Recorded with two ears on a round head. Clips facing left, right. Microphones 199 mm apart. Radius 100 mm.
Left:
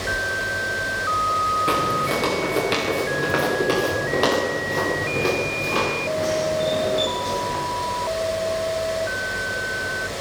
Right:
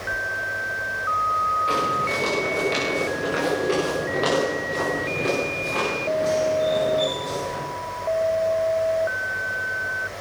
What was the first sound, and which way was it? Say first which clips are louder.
Footsteps: left 3 dB; 60° left (ahead or behind).